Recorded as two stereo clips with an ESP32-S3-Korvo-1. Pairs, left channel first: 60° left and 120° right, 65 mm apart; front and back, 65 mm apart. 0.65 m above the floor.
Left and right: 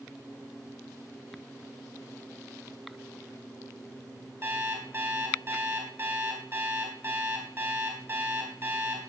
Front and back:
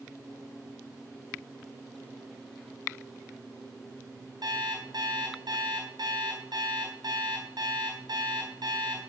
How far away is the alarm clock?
About 3 m.